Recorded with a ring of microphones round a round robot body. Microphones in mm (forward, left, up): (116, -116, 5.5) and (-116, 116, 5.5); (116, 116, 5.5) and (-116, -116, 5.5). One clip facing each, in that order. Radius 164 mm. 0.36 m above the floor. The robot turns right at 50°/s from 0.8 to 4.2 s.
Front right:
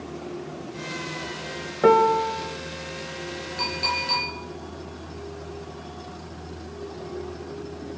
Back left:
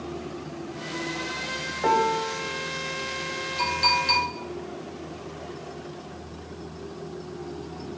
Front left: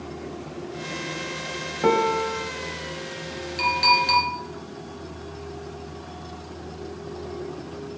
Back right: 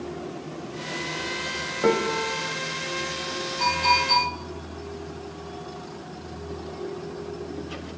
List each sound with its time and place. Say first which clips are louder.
1.8 s a piano: front right 8 dB, front left 1 dB; 35° right, 1.0 m; by 2.5 s straight ahead, 1.0 m
3.6 s a clink: even, front left 1 dB; 45° left, 5 m; by 4.3 s 80° left, 5 m